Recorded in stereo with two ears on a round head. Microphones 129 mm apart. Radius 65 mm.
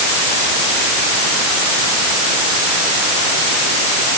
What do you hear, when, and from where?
Only background noise.